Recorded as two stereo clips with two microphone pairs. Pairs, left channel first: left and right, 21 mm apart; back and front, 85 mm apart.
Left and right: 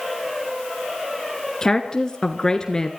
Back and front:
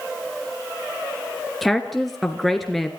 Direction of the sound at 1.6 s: 90° left.